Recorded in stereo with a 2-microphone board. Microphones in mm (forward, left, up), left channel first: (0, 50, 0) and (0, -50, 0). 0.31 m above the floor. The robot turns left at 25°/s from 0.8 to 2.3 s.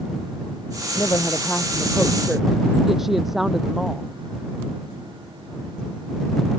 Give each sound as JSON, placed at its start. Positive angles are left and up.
{"t": 0.9, "sound": "a woman speaking", "azimuth_deg": 30}